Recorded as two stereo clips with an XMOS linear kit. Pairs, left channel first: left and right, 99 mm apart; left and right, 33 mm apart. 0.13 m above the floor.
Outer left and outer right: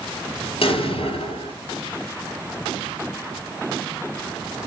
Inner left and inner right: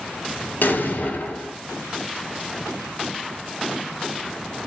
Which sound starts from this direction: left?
An explosion, at 0.6 s.